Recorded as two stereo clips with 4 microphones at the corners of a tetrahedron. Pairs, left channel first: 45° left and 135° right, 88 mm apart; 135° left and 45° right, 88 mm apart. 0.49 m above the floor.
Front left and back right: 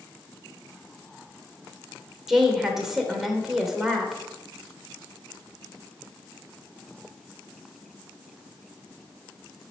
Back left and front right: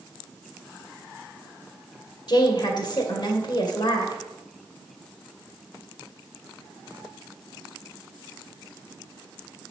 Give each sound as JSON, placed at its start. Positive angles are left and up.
{"t": 2.3, "sound": "a woman speaking", "azimuth_deg": 140, "distance_m": 2.0}